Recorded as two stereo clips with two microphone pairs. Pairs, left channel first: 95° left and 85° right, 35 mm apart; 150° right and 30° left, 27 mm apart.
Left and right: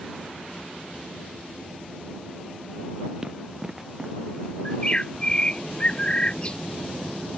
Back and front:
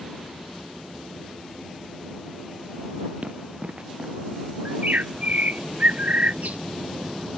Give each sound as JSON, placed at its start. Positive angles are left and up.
{"t": 3.2, "sound": "running footsteps", "azimuth_deg": -10}
{"t": 4.7, "sound": "a bird", "azimuth_deg": 40}